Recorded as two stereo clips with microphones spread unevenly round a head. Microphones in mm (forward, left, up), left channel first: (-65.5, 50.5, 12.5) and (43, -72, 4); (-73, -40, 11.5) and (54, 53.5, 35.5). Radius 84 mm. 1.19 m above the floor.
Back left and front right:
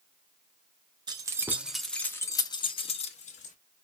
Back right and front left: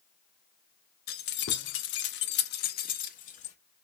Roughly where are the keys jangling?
Right.